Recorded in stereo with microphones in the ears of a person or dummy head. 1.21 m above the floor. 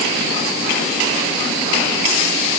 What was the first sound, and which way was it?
Only background noise.